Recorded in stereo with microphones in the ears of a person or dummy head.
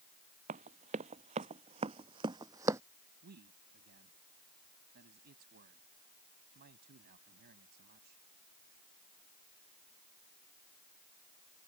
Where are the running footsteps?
45° right (ahead or behind); by 2.8 s 15° right (ahead or behind).